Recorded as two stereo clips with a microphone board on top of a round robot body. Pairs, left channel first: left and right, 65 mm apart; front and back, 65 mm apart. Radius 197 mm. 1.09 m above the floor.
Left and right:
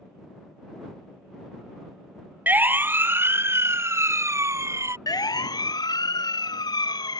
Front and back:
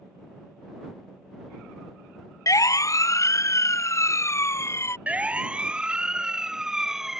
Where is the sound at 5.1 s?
110° left; by 7.2 s 95° left.